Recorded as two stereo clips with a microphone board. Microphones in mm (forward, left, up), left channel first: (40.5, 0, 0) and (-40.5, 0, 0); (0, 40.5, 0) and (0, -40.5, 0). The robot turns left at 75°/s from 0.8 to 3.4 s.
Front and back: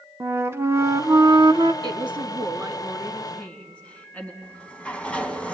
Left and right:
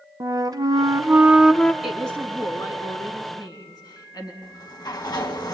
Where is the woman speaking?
170° right, 3 m; by 4.3 s 70° left, 3 m.